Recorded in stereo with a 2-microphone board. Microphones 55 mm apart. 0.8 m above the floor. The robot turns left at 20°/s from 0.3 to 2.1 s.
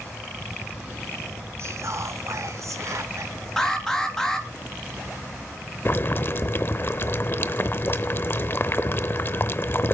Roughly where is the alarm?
Centre.